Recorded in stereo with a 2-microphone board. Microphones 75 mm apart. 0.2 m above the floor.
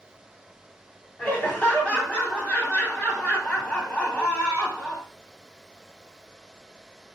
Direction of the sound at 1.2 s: 15° left (ahead or behind).